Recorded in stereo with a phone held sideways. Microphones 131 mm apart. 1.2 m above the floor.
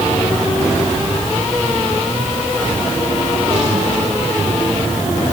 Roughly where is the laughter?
No laughter in this recording.